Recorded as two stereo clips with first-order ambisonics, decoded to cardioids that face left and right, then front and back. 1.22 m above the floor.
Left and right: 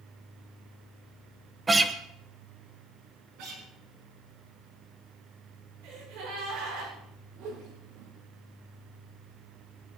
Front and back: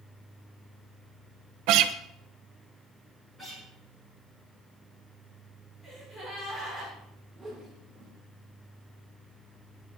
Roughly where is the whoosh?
Right.